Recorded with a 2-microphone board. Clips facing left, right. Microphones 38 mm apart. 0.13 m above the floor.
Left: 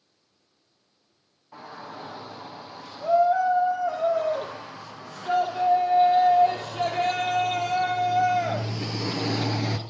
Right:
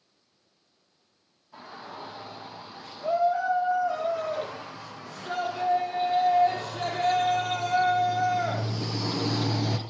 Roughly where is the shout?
Left.